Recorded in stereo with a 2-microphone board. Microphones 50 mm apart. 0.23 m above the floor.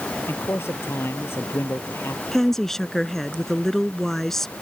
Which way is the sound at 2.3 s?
10° left (ahead or behind).